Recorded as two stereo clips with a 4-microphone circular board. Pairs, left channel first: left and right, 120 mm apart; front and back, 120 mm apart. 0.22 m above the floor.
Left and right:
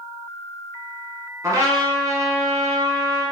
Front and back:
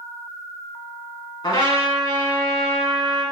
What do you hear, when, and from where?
1.4 s a trumpet: 35° right, 1.9 m